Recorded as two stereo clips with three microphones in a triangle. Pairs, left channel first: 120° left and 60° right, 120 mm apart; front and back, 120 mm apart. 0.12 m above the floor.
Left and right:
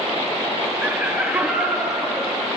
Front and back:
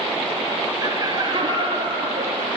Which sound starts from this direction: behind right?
Laughter, at 0.8 s.